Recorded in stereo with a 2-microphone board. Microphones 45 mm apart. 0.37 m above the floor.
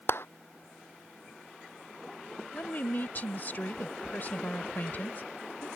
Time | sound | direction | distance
0.1 | a clap | 55° left (ahead or behind) | ?
2.5 | a woman speaking | 45° left (ahead or behind) | ?